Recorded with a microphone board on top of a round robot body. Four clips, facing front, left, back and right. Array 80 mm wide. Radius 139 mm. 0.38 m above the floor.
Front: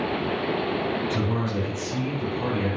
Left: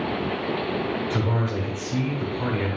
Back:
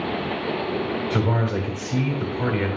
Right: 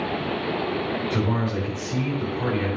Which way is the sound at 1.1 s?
175° left.